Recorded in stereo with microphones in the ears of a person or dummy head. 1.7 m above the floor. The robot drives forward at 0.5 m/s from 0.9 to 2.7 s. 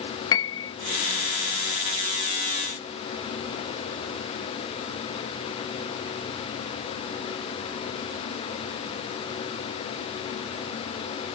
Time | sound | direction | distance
0.3 | a piano | 20° left (ahead or behind) | ?